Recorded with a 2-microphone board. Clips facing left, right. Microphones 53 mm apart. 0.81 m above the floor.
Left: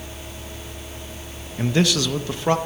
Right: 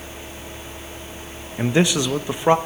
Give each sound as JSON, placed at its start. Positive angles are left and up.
{"t": 1.6, "sound": "a man speaking", "side_deg": -20, "distance_m": 0.6}